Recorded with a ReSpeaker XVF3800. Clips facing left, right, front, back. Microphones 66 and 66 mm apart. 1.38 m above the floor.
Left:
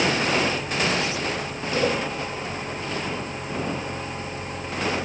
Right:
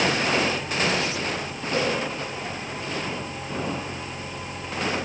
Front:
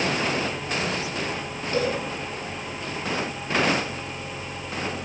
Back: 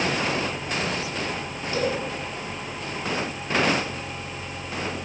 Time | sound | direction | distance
1.7 | a cowbell | 45° right | 9.5 m